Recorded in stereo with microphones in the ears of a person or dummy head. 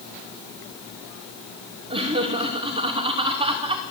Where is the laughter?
25° right (ahead or behind), 2.5 m.